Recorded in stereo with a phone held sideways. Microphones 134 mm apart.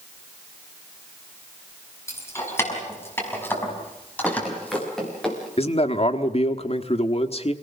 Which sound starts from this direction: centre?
Running footsteps, at 4.2 s.